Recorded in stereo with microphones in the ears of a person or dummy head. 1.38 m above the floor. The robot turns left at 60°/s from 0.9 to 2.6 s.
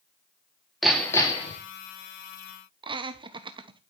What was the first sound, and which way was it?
Hammering, 175° right.